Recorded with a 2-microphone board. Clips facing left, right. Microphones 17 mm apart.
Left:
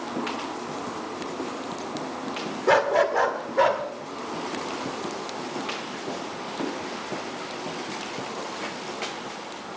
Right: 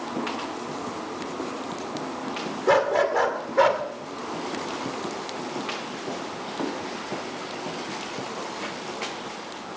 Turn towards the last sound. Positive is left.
turn(degrees=-25)  # may be behind; listen again after turning